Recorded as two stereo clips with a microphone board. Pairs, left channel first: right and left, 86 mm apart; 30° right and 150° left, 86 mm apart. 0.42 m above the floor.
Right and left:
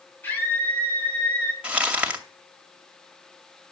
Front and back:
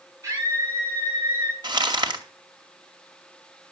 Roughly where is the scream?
Behind right.